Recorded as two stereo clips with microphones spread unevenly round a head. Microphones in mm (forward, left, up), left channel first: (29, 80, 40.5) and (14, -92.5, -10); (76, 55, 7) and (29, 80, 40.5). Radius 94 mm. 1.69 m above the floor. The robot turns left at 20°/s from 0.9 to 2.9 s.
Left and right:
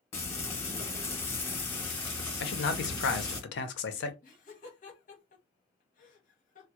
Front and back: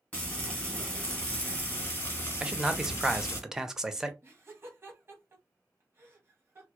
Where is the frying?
80° left, 1.4 m; by 3.4 s 40° left, 1.4 m.